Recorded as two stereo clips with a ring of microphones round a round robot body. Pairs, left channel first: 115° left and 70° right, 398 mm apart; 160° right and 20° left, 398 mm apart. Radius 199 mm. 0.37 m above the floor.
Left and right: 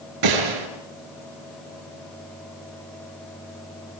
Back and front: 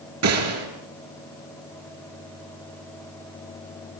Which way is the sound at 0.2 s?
30° right.